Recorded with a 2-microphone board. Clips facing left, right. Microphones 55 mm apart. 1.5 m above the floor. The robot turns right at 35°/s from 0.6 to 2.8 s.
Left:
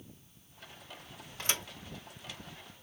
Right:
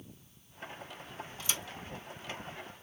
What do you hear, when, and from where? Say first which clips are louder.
1.4 s a thud: left 4 dB; 50° left (ahead or behind), 2 m; by 1.6 s 45° left (ahead or behind), 2 m